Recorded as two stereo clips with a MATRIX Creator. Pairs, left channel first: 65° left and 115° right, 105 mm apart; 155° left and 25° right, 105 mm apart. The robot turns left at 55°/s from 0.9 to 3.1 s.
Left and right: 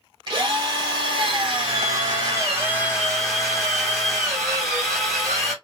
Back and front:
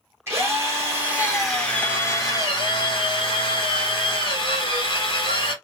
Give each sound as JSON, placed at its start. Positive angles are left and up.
{"t": 0.3, "sound": "a drill", "azimuth_deg": -85, "distance_m": 1.6}